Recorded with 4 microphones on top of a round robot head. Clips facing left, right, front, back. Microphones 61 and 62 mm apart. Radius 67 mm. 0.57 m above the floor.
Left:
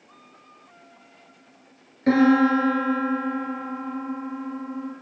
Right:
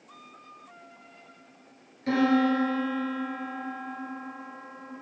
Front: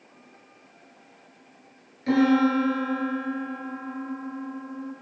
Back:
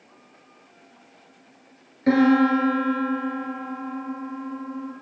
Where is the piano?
135° left, 1.7 m.